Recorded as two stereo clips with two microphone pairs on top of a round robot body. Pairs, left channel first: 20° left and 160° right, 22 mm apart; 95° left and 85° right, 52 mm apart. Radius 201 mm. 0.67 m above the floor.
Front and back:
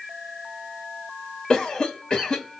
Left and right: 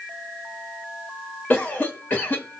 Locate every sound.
1.5 s a cough: 40° left, 1.3 m